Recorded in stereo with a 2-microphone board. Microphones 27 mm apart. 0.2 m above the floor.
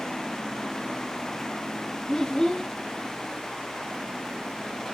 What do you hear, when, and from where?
2.1 s a child speaking: 30° left (ahead or behind), 0.6 m